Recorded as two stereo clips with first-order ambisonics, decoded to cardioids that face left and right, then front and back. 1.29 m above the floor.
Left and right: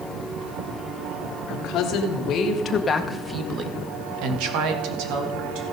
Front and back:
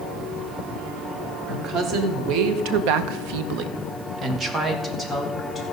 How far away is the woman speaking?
About 1.8 m.